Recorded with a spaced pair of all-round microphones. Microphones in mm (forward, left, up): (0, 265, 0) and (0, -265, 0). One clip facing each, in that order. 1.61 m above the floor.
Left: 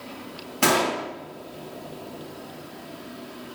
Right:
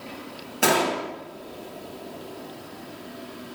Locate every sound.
0.6 s a gunshot: 25° left (ahead or behind), 0.6 m